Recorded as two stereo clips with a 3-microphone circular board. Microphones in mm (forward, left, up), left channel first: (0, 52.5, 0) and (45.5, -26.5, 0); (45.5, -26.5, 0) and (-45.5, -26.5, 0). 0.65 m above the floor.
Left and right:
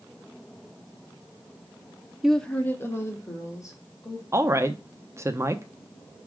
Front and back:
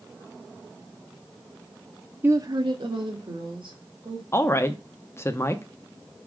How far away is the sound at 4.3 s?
About 0.6 m.